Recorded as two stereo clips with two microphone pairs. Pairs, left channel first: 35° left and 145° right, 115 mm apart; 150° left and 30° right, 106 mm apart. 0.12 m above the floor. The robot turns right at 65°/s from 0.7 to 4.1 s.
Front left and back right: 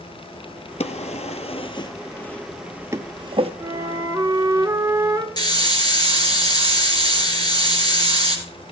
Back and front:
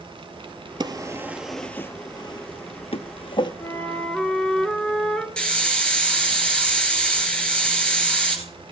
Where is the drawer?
15° left, 0.6 m; by 3.5 s 170° right, 0.6 m.